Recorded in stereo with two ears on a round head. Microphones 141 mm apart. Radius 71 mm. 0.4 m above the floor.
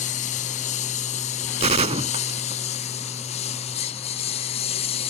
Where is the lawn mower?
50° left (ahead or behind); by 5.1 s 40° left (ahead or behind).